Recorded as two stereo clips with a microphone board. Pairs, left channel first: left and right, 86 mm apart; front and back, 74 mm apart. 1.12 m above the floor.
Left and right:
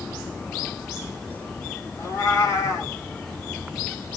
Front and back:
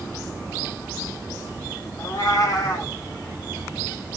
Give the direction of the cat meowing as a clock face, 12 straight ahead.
11 o'clock.